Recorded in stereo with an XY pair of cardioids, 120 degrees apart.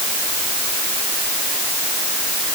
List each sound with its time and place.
Only background noise.